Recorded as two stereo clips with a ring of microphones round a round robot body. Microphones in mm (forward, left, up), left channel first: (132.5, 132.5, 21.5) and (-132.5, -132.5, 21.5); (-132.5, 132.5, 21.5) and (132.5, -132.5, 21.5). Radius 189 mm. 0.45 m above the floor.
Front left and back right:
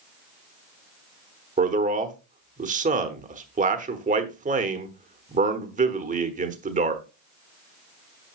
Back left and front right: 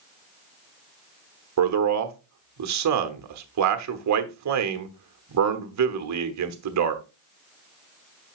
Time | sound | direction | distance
1.6 | a man speaking | 70° right | 1.1 m